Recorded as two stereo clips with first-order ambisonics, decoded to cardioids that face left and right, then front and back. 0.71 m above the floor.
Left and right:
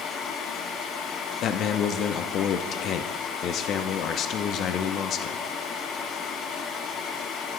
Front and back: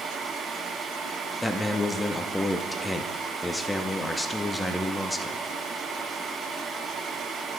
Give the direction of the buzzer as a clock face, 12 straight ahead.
I don't hear a buzzer.